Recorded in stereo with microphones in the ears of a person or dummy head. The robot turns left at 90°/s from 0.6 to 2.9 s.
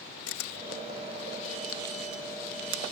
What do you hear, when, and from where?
0.3 s a camera shutter: 75° left (ahead or behind); by 2.8 s 80° right